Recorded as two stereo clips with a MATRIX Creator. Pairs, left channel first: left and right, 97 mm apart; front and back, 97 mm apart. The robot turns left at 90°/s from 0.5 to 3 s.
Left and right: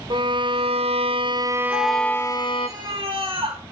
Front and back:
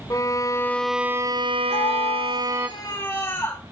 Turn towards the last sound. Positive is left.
turn(degrees=-50)